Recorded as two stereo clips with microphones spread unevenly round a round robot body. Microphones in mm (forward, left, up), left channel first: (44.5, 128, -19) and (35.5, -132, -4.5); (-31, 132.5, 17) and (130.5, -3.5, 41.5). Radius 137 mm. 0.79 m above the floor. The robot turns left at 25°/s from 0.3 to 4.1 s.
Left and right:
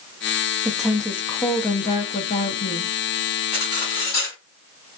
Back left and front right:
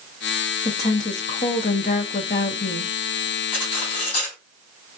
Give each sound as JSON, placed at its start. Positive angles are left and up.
{"t": 0.7, "sound": "a woman speaking", "azimuth_deg": 180, "distance_m": 0.7}
{"t": 3.5, "sound": "cutlery clinking", "azimuth_deg": 160, "distance_m": 2.5}